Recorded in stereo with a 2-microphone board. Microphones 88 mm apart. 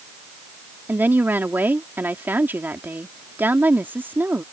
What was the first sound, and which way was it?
A woman speaking, 25° right (ahead or behind).